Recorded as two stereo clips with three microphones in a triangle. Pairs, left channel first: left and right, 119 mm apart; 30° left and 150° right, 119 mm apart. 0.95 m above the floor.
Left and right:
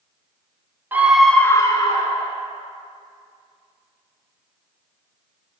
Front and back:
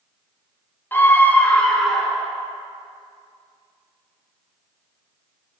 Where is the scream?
30° right, 1.0 m; by 2.4 s 120° left, 1.5 m.